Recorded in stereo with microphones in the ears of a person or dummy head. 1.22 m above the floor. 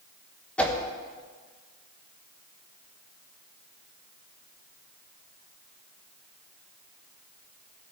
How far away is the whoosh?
About 1.1 m.